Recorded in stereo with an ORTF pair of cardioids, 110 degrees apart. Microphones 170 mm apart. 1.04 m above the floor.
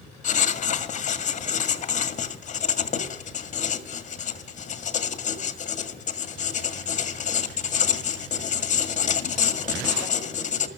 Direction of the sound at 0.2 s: 45° left.